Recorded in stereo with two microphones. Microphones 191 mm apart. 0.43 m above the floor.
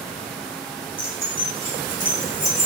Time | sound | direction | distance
1.0 | keys jangling | 50° left (ahead or behind) | 1.0 m